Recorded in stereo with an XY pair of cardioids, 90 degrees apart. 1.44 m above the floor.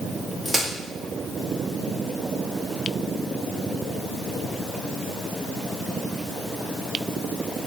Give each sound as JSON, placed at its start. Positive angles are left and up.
{"t": 0.5, "sound": "a crack", "azimuth_deg": -10, "distance_m": 1.7}